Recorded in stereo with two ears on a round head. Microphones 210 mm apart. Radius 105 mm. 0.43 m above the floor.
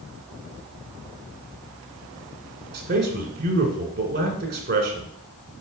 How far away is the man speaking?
About 1.9 m.